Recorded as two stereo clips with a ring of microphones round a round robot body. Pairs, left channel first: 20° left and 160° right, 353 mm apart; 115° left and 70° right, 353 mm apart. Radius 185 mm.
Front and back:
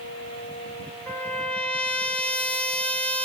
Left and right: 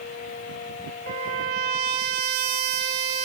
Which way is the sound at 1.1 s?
65° right.